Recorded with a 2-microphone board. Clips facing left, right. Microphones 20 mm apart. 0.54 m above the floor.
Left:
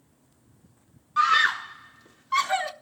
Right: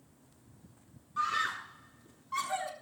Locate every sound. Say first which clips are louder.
1.2 s a scream: left 11 dB; 45° left (ahead or behind), 1.1 m